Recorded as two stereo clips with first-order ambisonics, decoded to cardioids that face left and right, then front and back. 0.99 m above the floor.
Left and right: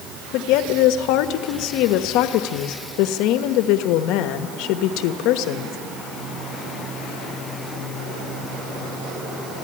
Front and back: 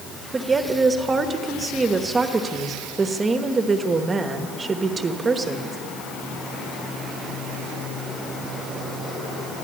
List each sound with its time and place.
0.3 s a woman speaking: 110° left, 1.2 m